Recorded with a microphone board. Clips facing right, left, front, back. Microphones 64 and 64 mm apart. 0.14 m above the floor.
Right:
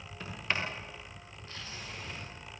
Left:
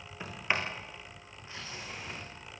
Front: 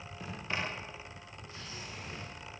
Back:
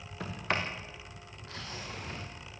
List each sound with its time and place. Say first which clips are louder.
0.2 s a sliding door: left 2 dB, back 4 dB; 160° left, 6 m